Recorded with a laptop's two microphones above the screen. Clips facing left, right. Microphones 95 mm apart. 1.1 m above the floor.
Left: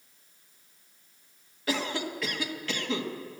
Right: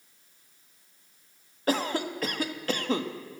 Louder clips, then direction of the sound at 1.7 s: Right 3 dB; 45° right (ahead or behind).